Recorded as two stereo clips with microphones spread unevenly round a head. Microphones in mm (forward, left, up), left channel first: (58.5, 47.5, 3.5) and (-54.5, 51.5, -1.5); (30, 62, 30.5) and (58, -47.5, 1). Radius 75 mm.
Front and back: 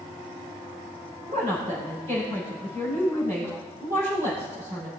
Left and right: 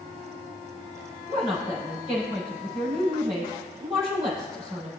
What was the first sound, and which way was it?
A woman speaking, 140° right.